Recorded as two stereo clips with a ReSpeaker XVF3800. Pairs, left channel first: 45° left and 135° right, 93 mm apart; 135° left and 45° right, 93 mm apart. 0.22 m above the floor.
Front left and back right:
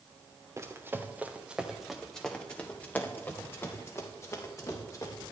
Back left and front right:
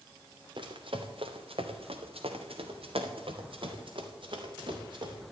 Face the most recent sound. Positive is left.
turn(degrees=-10)